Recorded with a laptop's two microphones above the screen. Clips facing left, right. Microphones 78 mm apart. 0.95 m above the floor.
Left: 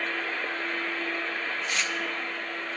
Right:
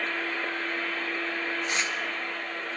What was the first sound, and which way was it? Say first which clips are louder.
Tearing paper: right 1 dB; 25° right (ahead or behind).